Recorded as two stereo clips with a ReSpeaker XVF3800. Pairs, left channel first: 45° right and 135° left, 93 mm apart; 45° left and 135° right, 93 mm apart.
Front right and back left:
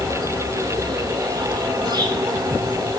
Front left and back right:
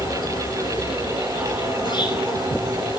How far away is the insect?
About 7.5 m.